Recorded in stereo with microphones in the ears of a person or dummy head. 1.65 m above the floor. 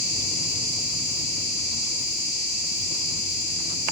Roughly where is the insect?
Left.